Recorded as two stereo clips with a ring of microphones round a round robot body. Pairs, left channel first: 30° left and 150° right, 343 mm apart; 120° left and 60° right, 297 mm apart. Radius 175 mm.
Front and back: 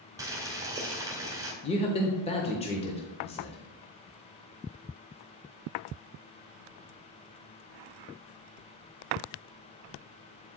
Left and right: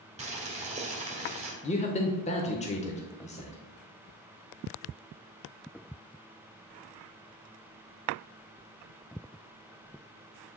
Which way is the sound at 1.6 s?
80° left.